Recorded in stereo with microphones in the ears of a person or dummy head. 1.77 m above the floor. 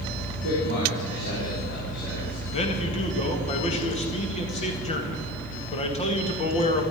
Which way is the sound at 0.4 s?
40° left (ahead or behind).